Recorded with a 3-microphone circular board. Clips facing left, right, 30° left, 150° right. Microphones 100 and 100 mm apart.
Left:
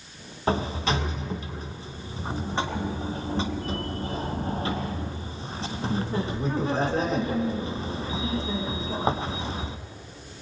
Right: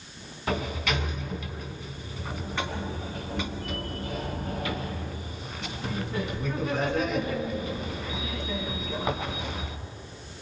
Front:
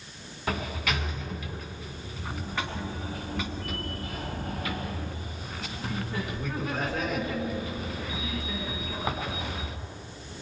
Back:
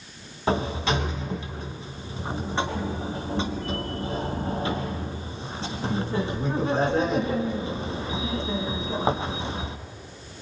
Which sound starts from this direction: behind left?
A sliding door, at 0.5 s.